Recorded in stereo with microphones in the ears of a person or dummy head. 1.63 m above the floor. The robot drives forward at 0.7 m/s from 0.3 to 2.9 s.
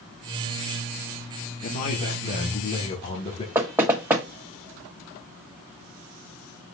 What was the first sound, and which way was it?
A man speaking, 50° left (ahead or behind).